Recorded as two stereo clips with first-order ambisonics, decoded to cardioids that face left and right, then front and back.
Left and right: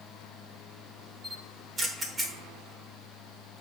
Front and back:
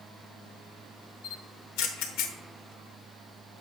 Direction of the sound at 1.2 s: 15° right.